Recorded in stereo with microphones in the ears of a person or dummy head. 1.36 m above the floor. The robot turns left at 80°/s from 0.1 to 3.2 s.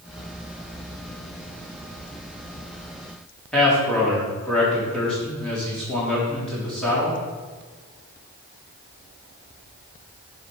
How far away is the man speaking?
About 3.5 m.